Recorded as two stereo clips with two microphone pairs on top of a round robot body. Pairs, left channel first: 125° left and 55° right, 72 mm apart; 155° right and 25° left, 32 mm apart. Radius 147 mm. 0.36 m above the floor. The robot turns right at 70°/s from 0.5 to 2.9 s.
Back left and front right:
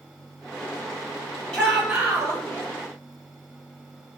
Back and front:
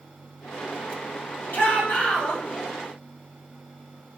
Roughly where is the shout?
Behind.